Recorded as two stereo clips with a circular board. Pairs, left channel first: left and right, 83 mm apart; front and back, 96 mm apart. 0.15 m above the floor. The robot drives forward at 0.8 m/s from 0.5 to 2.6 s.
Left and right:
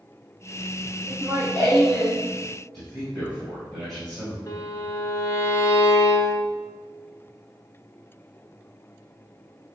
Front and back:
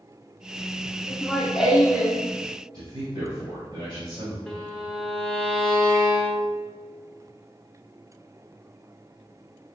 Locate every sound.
1.1 s laughter: 70° right, 1.4 m; by 2.2 s 145° right, 1.5 m
2.7 s a man speaking: straight behind, 2.0 m
4.5 s a violin: 80° left, 0.9 m